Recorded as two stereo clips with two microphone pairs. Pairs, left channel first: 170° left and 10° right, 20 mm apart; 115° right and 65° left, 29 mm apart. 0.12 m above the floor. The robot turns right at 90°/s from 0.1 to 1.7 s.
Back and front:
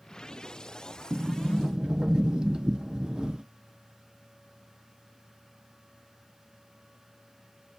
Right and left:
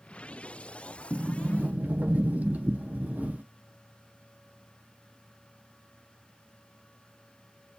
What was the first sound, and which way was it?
A sliding door, 10° right.